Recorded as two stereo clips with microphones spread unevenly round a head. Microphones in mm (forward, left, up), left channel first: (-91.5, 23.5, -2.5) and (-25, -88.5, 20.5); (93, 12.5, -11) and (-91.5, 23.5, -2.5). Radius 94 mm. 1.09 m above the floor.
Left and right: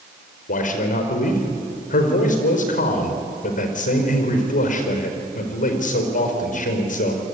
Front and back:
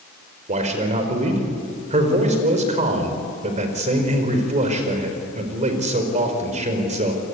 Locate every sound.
0.5 s a man speaking: 125° left, 4.5 m